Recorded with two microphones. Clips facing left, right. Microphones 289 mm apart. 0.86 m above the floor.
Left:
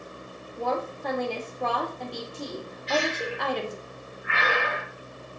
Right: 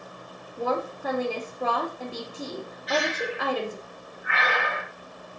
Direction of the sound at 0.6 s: 5° right (ahead or behind).